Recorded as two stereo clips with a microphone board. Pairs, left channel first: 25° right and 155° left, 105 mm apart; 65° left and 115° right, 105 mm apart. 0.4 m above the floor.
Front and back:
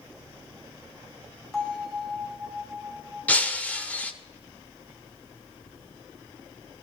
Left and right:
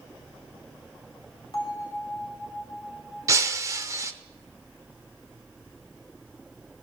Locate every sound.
1.5 s a bell: 60° left, 2.5 m
3.3 s breaking glass: 85° right, 0.5 m